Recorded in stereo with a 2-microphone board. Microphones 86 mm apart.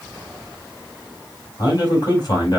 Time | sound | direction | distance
1.6 | a man speaking | 50° left (ahead or behind) | 5 m